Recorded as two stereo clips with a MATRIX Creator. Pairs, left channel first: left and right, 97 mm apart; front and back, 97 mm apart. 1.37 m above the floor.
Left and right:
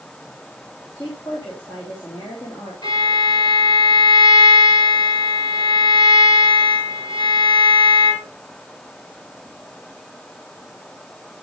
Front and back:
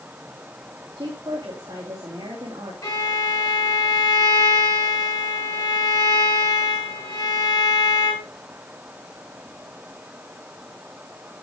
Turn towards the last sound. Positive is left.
turn(degrees=50)